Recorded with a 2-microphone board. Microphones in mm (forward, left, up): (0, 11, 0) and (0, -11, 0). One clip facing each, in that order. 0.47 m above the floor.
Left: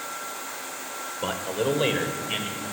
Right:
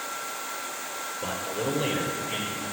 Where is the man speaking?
50° left (ahead or behind), 1.6 m; by 2.6 s 55° left (ahead or behind), 2.5 m.